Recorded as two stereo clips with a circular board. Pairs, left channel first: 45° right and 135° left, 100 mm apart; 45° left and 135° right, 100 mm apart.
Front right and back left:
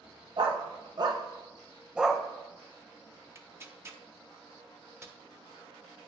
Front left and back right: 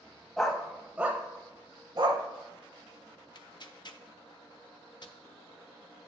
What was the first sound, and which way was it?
A dog barking, 130° left.